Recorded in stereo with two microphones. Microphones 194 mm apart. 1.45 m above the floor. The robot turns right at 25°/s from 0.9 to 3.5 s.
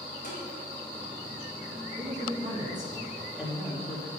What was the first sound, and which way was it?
Tapping, 50° left (ahead or behind).